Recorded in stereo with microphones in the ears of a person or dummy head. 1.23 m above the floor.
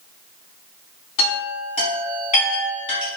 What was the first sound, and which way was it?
A chime, 40° left (ahead or behind).